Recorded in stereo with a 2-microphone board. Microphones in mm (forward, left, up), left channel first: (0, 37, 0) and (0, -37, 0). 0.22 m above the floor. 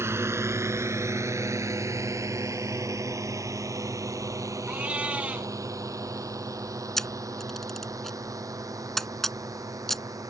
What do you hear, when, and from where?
0.0 s a drone: 35° right (ahead or behind); by 10.3 s 50° right (ahead or behind)
4.7 s a cat meowing: 15° right (ahead or behind)
7.0 s a camera shutter: 5° left (ahead or behind)